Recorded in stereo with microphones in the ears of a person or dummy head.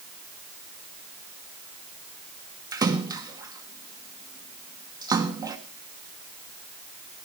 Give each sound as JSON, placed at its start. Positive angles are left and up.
{"t": 2.7, "sound": "a splash", "side_deg": -25, "distance_m": 1.6}